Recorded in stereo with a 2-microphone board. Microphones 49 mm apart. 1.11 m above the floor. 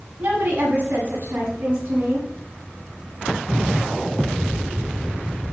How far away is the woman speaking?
About 6 m.